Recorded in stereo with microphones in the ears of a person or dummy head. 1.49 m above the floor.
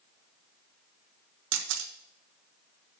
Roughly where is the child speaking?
No child speaking in this recording.